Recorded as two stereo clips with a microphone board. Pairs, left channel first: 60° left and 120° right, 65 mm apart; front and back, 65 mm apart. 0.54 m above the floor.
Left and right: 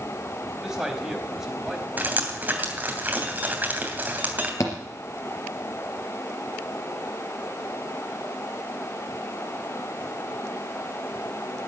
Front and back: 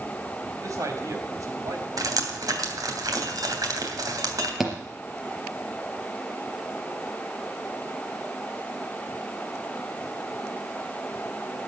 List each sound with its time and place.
0.6 s a man speaking: 155° left, 4 m
2.0 s dripping: 175° left, 3 m
4.6 s a thud: 95° left, 3.5 m